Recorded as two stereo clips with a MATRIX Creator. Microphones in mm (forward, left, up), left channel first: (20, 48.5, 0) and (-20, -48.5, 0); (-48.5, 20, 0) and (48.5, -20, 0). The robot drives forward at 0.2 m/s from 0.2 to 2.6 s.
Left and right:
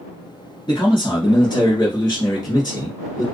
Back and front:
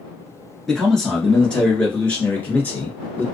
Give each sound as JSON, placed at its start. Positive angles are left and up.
{"t": 0.7, "sound": "a man speaking", "azimuth_deg": 70, "distance_m": 1.5}